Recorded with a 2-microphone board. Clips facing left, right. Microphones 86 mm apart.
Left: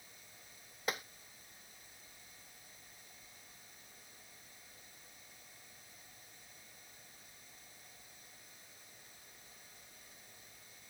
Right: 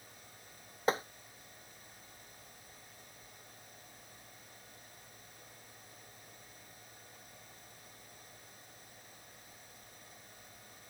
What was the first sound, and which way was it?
Tapping, 30° right (ahead or behind).